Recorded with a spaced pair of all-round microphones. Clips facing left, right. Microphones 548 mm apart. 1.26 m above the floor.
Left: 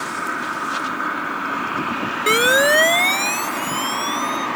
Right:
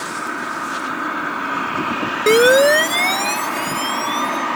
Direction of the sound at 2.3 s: 60° right (ahead or behind).